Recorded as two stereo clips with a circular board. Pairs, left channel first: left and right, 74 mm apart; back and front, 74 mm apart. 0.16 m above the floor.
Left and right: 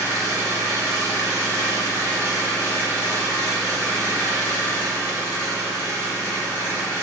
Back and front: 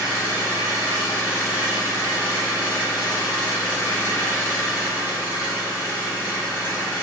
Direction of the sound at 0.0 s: 130° right.